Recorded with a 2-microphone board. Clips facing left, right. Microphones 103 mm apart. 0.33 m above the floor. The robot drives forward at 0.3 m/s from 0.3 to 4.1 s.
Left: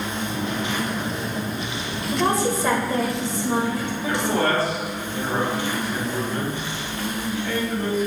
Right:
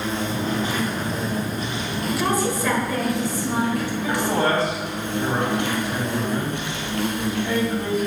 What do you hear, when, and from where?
0.0 s an insect: 35° right (ahead or behind), 1.8 m; by 8.1 s 70° right (ahead or behind), 1.1 m
2.1 s a woman speaking: 25° left (ahead or behind), 1.2 m
4.0 s a man speaking: 20° right (ahead or behind), 2 m